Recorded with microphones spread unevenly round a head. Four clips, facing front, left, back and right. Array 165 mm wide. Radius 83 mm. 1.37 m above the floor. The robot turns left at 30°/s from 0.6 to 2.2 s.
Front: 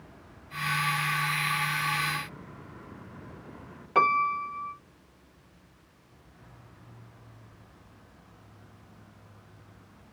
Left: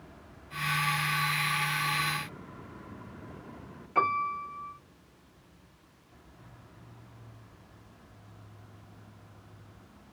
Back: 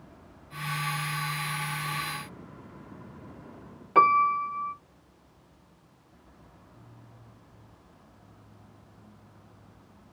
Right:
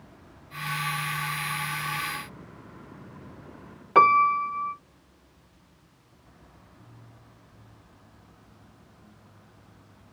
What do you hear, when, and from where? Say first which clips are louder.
4.0 s a piano: right 10 dB, back 4 dB; 80° right, 0.7 m